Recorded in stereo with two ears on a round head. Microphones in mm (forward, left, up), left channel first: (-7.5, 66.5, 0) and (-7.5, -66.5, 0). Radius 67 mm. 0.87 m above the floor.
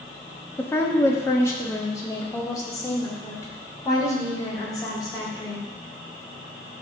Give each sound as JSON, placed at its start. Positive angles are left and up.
{"t": 0.6, "sound": "a woman speaking", "side_deg": 15, "distance_m": 1.2}